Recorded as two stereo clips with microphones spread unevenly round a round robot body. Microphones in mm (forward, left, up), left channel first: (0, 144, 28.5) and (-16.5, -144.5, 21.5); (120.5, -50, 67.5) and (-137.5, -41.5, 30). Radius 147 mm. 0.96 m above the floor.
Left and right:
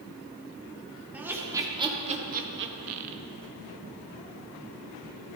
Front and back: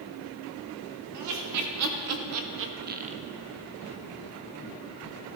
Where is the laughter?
Straight behind, 2 m; by 3.2 s 115° right, 1.0 m.